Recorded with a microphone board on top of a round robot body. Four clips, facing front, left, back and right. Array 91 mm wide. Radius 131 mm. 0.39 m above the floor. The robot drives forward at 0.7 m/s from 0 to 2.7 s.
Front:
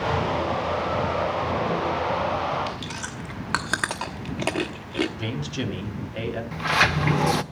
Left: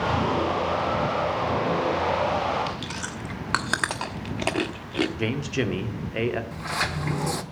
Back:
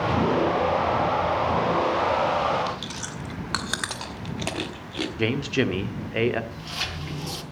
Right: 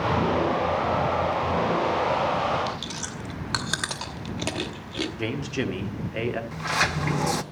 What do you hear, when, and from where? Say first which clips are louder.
2.7 s chewing: even, even; 50° left, 1.5 m
5.2 s a man speaking: left 2 dB, back 6 dB; 170° left, 1.5 m
6.5 s a sliding door: right 3 dB, front 13 dB; 15° right, 0.6 m